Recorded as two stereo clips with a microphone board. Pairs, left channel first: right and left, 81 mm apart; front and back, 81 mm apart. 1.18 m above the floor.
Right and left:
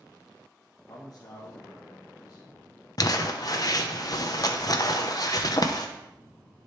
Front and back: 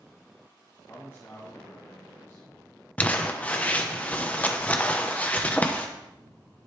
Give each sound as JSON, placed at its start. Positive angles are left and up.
{"t": 0.9, "sound": "a man speaking", "azimuth_deg": -55, "distance_m": 1.6}
{"t": 3.0, "sound": "crumpling", "azimuth_deg": -70, "distance_m": 0.8}